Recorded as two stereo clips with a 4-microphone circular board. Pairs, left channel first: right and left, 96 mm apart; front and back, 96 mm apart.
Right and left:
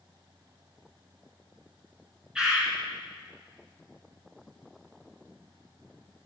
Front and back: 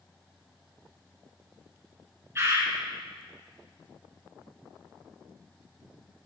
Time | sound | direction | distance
2.4 | a bird | 165° left | 1.3 m